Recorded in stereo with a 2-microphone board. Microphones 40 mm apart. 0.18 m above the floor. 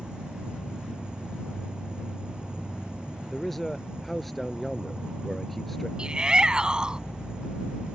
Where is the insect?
20° right (ahead or behind).